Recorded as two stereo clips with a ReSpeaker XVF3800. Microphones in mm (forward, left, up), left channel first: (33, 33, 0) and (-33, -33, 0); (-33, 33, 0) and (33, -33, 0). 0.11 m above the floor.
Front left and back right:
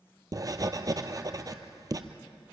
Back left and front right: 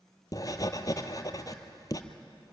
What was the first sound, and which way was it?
Writing, straight behind.